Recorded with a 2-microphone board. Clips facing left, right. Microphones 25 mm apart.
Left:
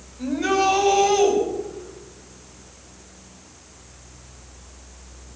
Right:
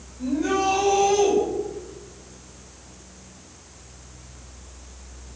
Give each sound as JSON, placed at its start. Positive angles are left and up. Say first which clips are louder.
{"t": 0.2, "sound": "a shout", "louder": "left 2 dB", "side_deg": 50, "distance_m": 7.0}